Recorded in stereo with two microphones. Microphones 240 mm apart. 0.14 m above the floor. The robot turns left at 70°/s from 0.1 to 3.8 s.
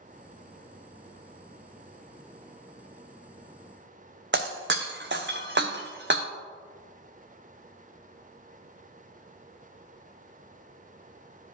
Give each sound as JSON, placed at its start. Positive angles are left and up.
{"t": 4.3, "sound": "breaking glass", "side_deg": -50, "distance_m": 0.9}